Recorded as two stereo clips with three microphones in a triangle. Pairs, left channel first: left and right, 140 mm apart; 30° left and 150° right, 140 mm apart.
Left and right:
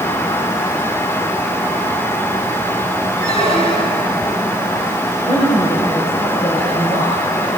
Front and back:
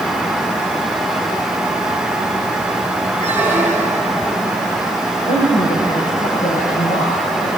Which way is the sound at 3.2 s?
135° left.